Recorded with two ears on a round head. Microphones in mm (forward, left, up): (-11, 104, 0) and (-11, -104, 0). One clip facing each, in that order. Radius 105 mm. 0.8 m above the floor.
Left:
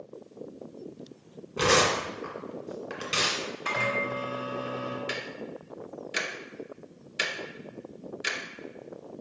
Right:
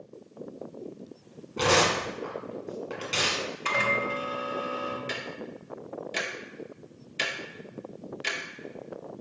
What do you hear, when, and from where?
1.6 s tearing paper: 10° left (ahead or behind), 1.7 m
3.6 s a microwave: 45° right (ahead or behind), 1.4 m
5.1 s ticking: 15° left (ahead or behind), 0.8 m